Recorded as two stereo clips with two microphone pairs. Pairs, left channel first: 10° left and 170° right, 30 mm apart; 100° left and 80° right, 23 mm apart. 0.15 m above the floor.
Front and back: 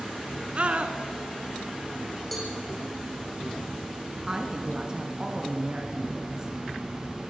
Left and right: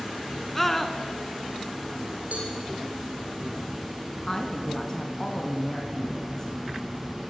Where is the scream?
175° left, 1.9 m.